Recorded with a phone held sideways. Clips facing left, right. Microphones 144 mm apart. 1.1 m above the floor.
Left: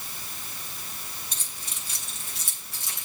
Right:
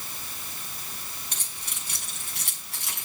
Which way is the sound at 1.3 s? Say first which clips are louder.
Right 1 dB; 65° right (ahead or behind).